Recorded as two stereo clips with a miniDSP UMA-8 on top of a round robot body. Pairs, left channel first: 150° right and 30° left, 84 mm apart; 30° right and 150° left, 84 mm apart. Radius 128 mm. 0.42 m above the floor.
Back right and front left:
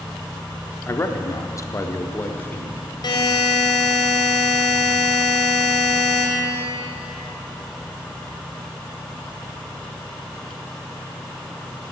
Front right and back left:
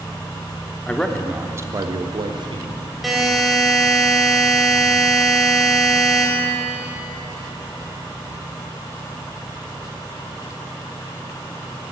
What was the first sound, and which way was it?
A man speaking, 100° right.